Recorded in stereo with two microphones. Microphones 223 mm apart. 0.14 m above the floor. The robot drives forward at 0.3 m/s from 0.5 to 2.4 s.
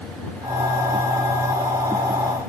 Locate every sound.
Only background noise.